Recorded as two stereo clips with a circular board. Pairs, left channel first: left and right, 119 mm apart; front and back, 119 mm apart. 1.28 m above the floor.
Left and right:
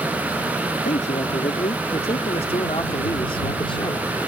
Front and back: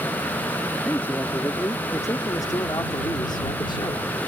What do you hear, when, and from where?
0.8 s a man speaking: 75° left; by 4.2 s 40° left